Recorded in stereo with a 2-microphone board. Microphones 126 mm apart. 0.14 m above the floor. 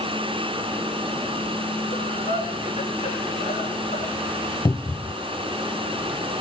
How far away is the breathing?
About 5.5 m.